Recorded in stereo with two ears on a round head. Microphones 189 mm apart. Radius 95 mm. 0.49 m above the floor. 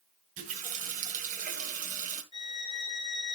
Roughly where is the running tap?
Right.